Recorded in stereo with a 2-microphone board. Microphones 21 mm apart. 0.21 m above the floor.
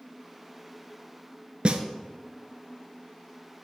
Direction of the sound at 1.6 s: 60° right (ahead or behind).